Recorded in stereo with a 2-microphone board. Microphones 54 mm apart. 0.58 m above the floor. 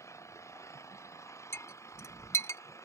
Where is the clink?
55° left (ahead or behind).